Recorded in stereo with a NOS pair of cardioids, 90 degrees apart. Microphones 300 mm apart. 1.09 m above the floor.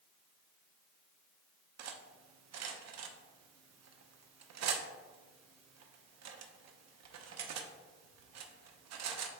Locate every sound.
1.8 s cutlery clinking: 60° right, 0.9 m